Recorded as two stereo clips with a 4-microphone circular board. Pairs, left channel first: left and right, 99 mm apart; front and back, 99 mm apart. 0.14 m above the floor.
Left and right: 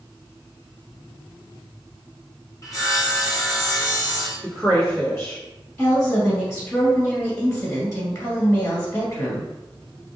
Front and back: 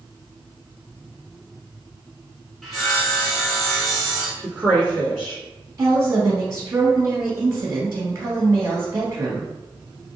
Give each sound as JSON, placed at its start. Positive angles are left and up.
{"t": 2.6, "sound": "sawing", "azimuth_deg": 90, "distance_m": 1.2}
{"t": 4.4, "sound": "a woman speaking", "azimuth_deg": 90, "distance_m": 1.6}
{"t": 5.8, "sound": "a woman speaking", "azimuth_deg": 135, "distance_m": 1.6}